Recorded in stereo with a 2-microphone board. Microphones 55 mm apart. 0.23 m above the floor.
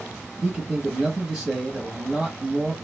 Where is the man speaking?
10° right (ahead or behind), 1.1 m.